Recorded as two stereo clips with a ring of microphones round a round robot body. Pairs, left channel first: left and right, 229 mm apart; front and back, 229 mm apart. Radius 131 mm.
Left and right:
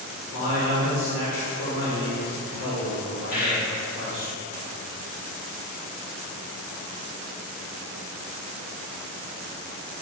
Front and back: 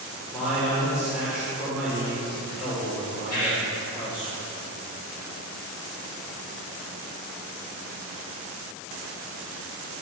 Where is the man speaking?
95° left, 1.8 m.